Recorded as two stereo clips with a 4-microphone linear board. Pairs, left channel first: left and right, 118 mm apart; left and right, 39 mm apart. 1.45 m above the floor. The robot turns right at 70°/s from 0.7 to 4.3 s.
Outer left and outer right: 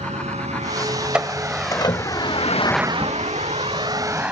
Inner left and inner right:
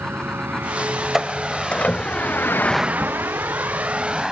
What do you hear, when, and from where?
0.0 s a vehicle: 75° right (ahead or behind); by 4.3 s 10° right (ahead or behind)
1.1 s a door slam: 10° right (ahead or behind); by 2.4 s 80° left
3.0 s a crack: 5° left (ahead or behind); by 3.1 s 15° left (ahead or behind)